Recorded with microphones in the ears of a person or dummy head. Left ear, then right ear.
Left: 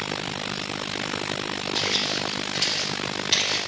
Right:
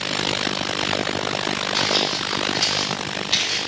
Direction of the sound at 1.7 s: Centre (ahead or behind).